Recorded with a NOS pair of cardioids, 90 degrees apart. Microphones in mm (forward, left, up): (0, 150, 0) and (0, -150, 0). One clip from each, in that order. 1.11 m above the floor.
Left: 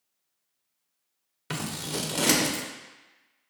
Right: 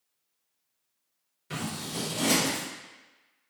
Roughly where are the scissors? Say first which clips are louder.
Left 2 dB; ahead left.